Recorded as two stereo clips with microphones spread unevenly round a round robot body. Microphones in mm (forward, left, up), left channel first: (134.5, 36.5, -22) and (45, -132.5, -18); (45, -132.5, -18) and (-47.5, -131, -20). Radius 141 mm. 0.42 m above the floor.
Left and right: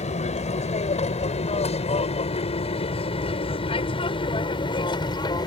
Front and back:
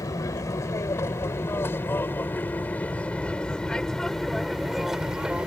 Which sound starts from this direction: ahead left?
An aircraft, at 0.0 s.